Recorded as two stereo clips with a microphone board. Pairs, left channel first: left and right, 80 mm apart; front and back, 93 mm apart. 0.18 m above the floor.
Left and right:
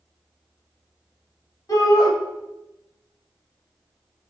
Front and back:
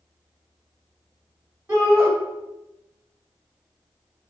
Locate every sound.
1.7 s a shout: 115° left, 4 m